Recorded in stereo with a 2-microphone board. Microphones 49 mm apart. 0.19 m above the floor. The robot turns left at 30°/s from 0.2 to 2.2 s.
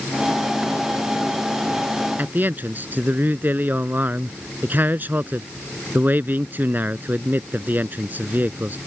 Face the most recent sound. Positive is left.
turn(degrees=-40)  # may be behind; listen again after turning